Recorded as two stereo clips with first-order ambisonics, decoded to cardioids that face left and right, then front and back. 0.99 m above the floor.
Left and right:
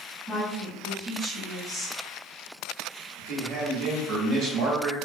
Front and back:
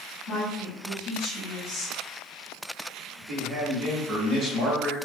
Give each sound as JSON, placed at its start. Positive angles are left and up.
{"t": 0.3, "sound": "a woman speaking", "azimuth_deg": 0, "distance_m": 1.8}
{"t": 3.2, "sound": "a man speaking", "azimuth_deg": -125, "distance_m": 1.1}